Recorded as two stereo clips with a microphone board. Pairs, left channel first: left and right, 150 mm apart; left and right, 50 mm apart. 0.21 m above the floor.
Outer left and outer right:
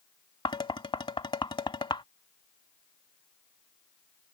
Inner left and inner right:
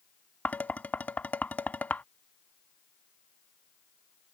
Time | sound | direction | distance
0.5 | dishes clattering | 35° left (ahead or behind) | ?